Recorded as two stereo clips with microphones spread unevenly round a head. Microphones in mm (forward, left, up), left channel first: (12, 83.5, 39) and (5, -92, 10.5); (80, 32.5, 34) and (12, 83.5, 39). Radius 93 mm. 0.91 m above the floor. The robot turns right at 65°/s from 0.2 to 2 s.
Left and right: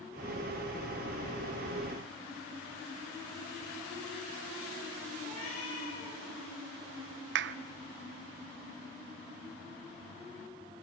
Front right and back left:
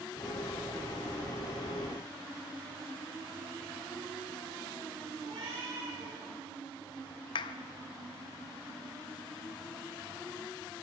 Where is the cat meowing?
140° left, 10 m.